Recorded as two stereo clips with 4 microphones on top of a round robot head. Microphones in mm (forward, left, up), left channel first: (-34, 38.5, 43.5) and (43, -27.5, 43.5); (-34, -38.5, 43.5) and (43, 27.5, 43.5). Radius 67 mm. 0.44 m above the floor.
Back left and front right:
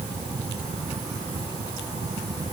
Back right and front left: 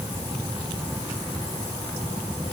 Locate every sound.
Only background noise.